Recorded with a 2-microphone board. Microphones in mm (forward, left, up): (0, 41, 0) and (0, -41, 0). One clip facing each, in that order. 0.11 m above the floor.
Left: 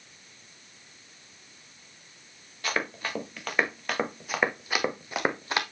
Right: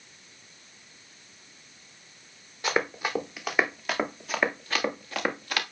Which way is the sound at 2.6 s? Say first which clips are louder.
Right 4 dB; 20° right (ahead or behind).